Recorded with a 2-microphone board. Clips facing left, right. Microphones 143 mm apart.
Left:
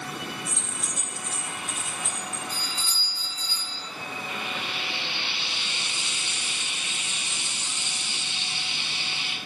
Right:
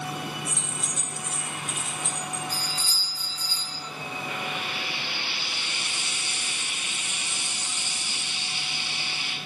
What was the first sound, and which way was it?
Keys jangling, 10° right (ahead or behind).